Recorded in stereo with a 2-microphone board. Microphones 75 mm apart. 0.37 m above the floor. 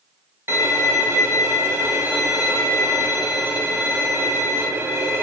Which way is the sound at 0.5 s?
35° right (ahead or behind).